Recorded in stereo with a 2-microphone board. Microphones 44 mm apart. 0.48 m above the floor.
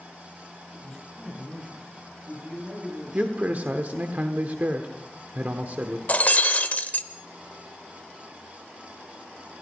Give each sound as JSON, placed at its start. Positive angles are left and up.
{"t": 0.7, "sound": "a man speaking", "side_deg": -15, "distance_m": 9.0}
{"t": 3.1, "sound": "a man speaking", "side_deg": -40, "distance_m": 1.0}
{"t": 6.1, "sound": "breaking glass", "side_deg": 40, "distance_m": 0.9}